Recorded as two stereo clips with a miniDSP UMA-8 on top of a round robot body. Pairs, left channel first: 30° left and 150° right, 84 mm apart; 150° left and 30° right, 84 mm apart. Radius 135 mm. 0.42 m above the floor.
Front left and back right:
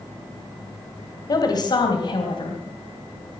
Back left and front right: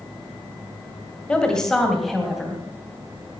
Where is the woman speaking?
70° left, 2.5 m; by 2.6 s 55° left, 3 m.